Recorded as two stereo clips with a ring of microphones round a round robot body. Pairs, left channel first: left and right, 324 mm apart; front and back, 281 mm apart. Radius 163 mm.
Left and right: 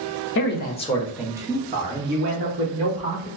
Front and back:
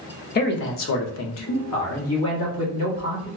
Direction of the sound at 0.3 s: 50° left.